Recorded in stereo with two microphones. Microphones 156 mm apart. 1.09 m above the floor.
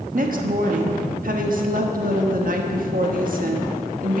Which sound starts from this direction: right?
A woman speaking, at 0.1 s.